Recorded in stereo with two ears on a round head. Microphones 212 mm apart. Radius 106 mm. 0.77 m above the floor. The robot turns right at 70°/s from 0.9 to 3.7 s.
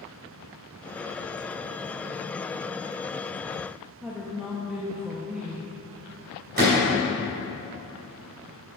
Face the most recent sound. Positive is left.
turn(degrees=-40)  # may be behind; listen again after turning